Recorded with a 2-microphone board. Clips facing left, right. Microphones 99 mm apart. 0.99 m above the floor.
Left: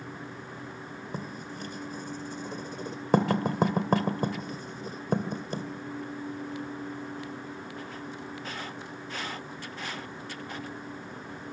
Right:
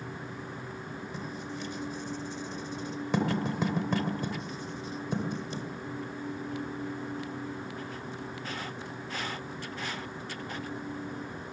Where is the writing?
45° left (ahead or behind), 2 m.